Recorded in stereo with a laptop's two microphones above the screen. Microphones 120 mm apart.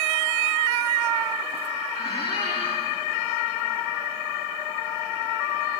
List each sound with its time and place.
1.9 s a squeak: 55° left (ahead or behind), 9 m